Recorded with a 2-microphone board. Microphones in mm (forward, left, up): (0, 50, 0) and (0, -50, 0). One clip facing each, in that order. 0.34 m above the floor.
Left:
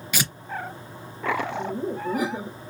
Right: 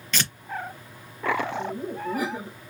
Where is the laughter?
15° left (ahead or behind), 1.1 m.